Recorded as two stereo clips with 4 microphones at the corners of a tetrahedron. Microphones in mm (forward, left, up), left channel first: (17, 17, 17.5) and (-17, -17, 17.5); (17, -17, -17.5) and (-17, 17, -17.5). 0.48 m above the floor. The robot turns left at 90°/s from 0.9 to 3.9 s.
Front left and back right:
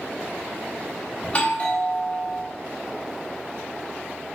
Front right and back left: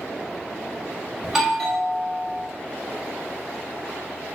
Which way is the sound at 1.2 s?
70° left.